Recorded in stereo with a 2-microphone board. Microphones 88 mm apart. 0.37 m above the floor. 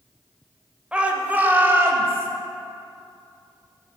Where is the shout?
15° right (ahead or behind), 1.1 m; by 2.3 s 30° right (ahead or behind), 1.6 m.